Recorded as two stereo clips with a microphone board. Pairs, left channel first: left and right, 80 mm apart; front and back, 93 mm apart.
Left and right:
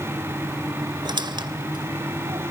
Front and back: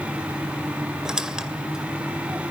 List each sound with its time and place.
1.1 s a squeak: 100° right, 2 m